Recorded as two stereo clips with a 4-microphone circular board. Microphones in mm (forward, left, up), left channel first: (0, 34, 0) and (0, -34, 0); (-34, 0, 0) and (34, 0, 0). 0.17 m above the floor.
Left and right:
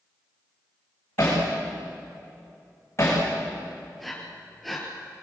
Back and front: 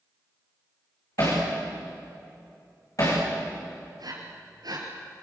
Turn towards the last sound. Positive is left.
turn(degrees=5)